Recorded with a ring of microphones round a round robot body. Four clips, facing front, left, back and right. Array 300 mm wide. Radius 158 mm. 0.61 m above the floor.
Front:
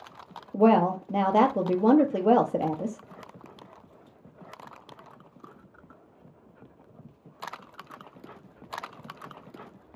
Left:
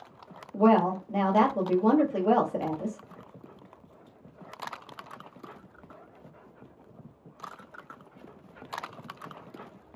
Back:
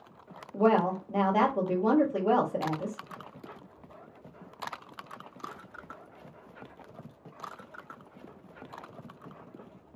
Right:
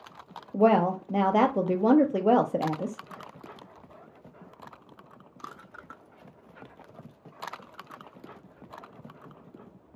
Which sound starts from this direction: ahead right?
A woman speaking, at 0.5 s.